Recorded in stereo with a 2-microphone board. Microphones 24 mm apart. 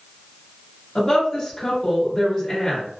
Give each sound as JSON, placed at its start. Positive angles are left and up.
{"t": 0.9, "sound": "a woman speaking", "side_deg": 15, "distance_m": 1.1}